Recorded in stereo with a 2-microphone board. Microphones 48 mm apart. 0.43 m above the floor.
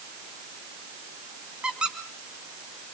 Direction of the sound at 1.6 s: 20° right (ahead or behind).